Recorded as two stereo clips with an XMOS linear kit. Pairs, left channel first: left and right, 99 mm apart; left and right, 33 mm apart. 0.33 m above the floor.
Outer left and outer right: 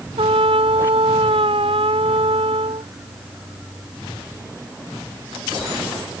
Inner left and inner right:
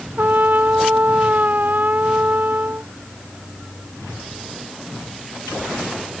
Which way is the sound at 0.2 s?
65° right (ahead or behind).